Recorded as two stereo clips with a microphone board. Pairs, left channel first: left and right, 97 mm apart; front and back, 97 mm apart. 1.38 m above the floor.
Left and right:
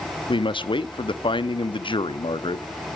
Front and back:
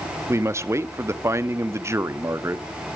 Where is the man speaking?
120° left, 0.7 m.